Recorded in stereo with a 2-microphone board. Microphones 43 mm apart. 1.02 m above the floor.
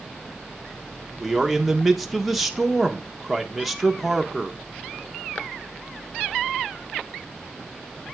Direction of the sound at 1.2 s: 5° right (ahead or behind).